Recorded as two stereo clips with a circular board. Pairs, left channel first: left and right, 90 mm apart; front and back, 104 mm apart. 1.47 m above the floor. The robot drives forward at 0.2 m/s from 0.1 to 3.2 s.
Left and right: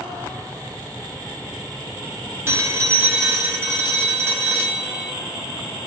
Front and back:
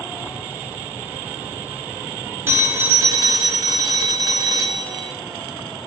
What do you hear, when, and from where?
2.5 s a phone ringing: 130° right, 0.6 m; by 5.1 s 145° right, 0.6 m